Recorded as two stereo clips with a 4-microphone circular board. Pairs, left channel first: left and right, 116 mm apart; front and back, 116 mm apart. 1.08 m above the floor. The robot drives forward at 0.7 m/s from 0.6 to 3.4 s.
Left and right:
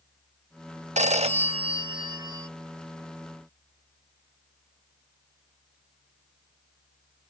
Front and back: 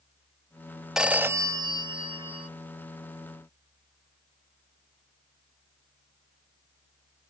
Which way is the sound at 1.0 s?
95° right.